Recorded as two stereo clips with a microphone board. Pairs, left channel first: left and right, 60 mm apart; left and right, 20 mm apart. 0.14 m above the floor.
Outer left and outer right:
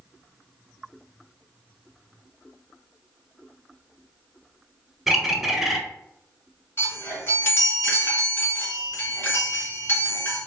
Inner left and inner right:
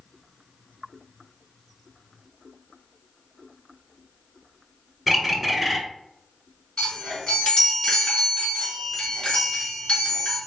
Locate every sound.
5.1 s a bird: 5° right (ahead or behind), 0.6 m
6.8 s a chime: 40° left (ahead or behind), 1.9 m